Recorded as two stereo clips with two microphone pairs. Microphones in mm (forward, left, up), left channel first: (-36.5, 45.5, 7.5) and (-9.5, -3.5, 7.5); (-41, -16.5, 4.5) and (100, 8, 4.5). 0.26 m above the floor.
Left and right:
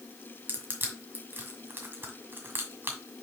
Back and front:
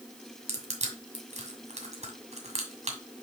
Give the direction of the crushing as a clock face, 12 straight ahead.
1 o'clock.